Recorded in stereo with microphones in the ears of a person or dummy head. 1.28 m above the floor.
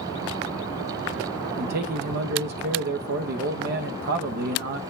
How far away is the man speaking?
About 1.0 m.